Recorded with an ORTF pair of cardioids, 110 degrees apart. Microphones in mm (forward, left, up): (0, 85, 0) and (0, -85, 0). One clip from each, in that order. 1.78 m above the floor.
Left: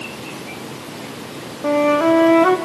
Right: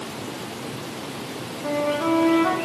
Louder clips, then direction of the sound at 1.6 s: Left 8 dB; 45° left.